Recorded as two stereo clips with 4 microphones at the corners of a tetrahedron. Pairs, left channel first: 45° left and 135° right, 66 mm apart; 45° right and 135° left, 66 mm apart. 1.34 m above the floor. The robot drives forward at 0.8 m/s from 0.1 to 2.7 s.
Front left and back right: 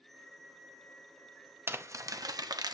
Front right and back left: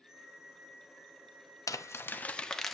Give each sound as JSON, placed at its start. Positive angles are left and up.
{"t": 1.7, "sound": "crumpling", "azimuth_deg": -80, "distance_m": 0.8}